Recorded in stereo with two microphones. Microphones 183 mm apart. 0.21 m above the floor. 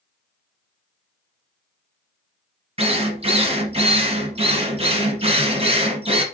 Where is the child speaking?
I don't hear a child speaking.